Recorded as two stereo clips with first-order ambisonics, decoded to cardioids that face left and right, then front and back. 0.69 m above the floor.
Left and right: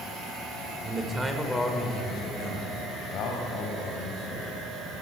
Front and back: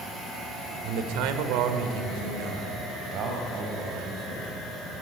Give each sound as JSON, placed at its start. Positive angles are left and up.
{"t": 0.8, "sound": "a man speaking", "azimuth_deg": -165, "distance_m": 2.5}